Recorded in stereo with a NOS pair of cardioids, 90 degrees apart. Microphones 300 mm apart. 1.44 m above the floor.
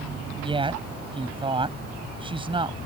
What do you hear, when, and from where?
0.4 s a woman speaking: 15° right